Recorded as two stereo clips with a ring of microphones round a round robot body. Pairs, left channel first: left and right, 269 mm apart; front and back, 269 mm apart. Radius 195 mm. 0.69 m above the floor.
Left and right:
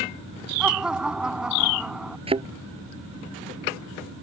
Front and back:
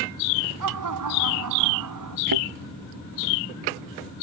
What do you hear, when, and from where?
0.6 s laughter: 175° right
2.3 s a thud: 160° right